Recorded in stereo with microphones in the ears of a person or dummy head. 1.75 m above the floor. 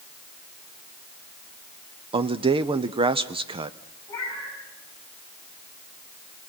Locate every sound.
2.1 s a man speaking: 25° right (ahead or behind), 0.8 m
4.1 s a cat meowing: 20° left (ahead or behind), 6 m